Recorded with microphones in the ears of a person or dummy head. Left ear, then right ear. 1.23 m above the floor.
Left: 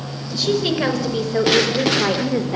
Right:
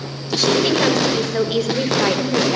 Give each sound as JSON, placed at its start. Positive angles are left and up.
{"t": 0.3, "sound": "a woman speaking", "side_deg": -10, "distance_m": 6.0}